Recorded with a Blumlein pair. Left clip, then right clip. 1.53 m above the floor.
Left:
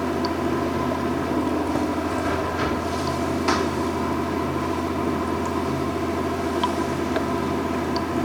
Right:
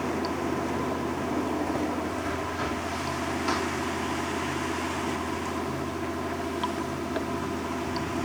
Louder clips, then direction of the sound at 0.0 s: Left 5 dB; 20° left.